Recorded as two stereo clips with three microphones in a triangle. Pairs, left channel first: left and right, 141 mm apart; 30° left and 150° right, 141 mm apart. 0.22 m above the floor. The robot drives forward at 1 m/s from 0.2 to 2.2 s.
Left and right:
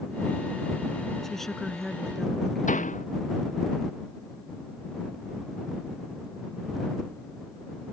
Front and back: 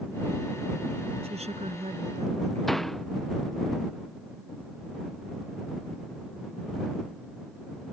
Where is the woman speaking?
175° left; by 3.0 s straight behind.